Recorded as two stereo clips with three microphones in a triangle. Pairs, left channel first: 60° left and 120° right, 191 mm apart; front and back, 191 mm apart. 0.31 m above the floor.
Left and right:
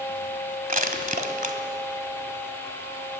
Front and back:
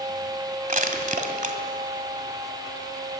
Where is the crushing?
150° right, 2.0 m.